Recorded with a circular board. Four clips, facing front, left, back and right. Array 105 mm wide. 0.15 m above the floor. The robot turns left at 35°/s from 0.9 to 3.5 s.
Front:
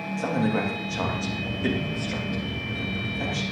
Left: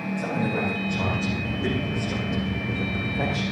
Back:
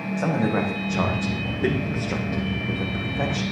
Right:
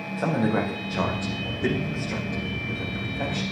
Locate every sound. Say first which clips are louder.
0.2 s a man speaking: right 4 dB, back 2 dB; 140° right, 7 m; by 3.4 s 135° left, 7 m